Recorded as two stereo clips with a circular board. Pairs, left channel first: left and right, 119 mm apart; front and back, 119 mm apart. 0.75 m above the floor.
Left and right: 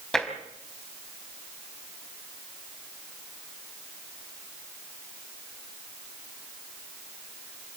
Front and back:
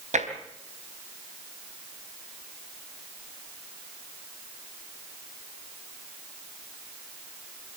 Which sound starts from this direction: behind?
Tapping, at 0.1 s.